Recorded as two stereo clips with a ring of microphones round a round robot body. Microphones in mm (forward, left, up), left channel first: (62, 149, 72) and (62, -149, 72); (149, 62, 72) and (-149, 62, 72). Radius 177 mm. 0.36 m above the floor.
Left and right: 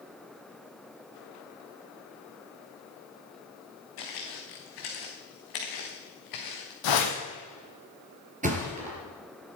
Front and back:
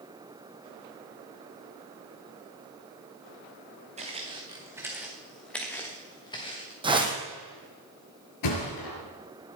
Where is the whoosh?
105° left, 3 m.